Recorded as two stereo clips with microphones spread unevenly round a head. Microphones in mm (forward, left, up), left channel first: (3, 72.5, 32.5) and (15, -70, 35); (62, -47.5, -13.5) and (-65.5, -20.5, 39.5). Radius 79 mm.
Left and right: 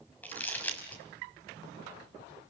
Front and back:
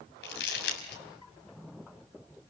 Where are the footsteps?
No footsteps in this recording.